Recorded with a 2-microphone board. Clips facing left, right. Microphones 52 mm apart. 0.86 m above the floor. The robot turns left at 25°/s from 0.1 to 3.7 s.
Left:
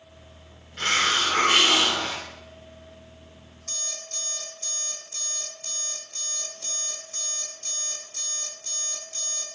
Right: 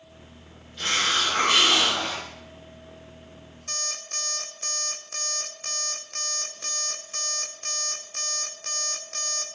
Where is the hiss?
50° left, 3.5 m; by 2.3 s 15° left, 3.5 m.